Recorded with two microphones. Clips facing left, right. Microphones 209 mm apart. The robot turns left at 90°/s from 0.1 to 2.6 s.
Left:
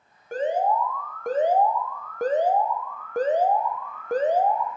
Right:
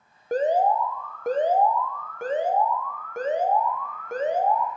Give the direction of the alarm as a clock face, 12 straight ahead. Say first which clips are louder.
Right 2 dB; 3 o'clock.